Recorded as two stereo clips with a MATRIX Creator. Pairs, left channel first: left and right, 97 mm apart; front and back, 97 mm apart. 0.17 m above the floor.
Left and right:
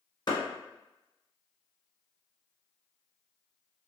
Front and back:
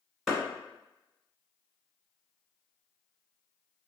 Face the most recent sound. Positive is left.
turn(degrees=95)